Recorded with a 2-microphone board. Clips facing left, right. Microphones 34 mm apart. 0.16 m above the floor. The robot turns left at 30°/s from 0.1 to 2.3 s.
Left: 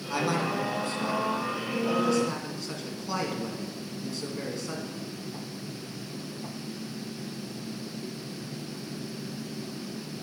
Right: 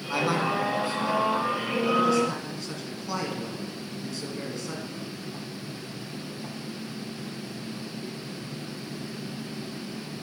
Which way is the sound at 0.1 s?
20° right (ahead or behind).